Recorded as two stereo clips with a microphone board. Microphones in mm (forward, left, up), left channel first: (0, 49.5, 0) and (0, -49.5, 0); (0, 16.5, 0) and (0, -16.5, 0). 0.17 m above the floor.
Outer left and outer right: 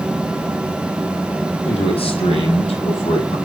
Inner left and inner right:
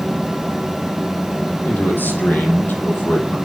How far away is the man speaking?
About 6 m.